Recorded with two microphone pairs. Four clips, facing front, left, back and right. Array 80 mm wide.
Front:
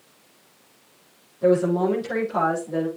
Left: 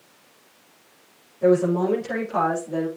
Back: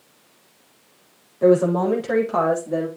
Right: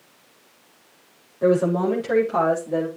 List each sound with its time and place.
1.4 s a woman speaking: 160° right, 9 m